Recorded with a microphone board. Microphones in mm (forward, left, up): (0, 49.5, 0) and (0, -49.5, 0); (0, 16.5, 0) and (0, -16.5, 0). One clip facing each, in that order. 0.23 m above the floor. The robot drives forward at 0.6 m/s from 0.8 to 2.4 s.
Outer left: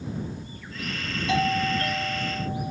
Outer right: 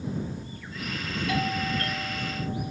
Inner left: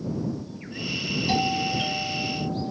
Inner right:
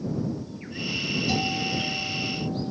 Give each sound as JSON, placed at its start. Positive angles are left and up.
{"t": 1.3, "sound": "a doorbell", "side_deg": 25}